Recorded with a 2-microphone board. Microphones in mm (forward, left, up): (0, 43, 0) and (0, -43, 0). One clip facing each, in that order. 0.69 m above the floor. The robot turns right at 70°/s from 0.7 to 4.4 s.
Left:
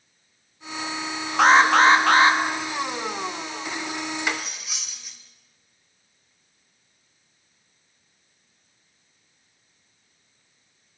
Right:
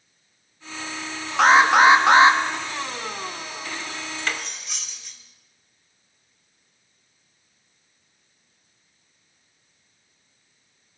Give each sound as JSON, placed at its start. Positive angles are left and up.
{"t": 1.4, "sound": "an alarm", "side_deg": 0, "distance_m": 1.0}
{"t": 4.2, "sound": "cutlery clinking", "side_deg": 20, "distance_m": 1.1}